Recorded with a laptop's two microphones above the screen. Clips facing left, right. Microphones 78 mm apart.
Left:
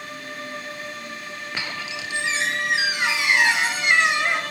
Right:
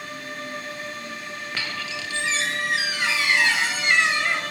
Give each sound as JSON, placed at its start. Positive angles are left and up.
{"t": 1.6, "sound": "a squeak", "side_deg": 20, "distance_m": 1.0}